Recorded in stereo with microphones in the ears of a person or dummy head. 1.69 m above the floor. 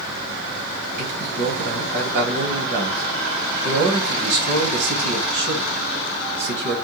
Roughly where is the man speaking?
Right.